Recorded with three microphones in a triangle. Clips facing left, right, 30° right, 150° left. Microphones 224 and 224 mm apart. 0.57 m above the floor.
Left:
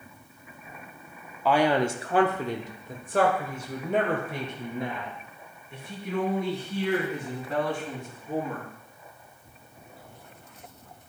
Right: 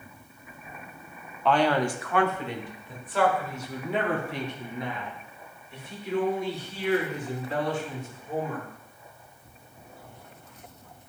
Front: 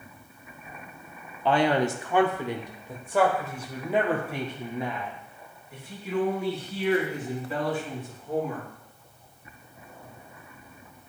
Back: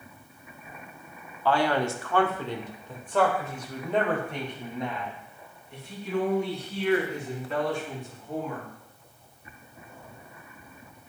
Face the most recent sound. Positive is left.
turn(degrees=55)